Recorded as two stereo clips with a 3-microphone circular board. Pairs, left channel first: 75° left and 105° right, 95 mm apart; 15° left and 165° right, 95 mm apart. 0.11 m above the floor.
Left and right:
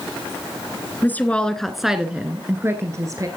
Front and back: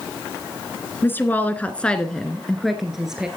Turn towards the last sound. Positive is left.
turn(degrees=-85)